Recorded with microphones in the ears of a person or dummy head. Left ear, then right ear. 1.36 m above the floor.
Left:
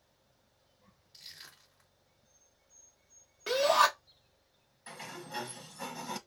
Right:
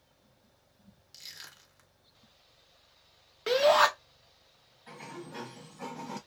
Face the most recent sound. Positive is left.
turn(degrees=70)  # may be behind; listen again after turning